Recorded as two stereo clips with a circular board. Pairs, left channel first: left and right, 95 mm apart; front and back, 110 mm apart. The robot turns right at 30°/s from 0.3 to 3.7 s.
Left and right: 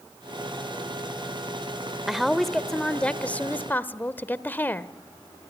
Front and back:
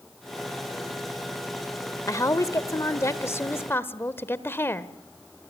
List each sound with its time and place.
2.1 s a woman speaking: 5° right, 0.9 m; by 4.9 s 45° left, 0.9 m